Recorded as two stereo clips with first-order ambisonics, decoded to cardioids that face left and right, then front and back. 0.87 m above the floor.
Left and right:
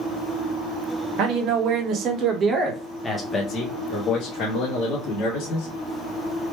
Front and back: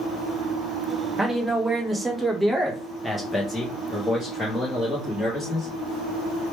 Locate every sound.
1.2 s a man speaking: 100° right, 1.1 m; by 5.7 s 80° left, 1.6 m